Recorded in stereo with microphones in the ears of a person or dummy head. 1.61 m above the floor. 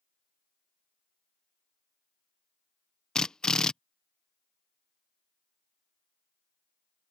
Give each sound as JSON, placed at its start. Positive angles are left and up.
{"t": 3.1, "sound": "a drill", "side_deg": 0}